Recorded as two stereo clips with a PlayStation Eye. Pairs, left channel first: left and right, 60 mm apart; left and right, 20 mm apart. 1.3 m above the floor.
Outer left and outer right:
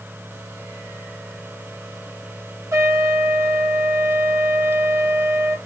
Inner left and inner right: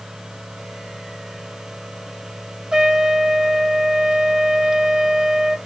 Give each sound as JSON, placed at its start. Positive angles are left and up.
{"t": 2.7, "sound": "a trumpet", "side_deg": -45, "distance_m": 1.1}